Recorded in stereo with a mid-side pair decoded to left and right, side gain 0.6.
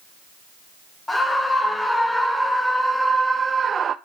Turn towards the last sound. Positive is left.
turn(degrees=-45)